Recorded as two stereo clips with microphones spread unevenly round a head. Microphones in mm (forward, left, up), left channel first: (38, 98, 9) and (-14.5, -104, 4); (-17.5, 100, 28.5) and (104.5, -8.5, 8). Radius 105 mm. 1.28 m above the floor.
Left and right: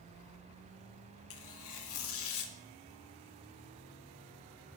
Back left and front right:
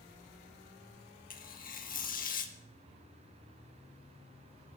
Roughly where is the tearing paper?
Left.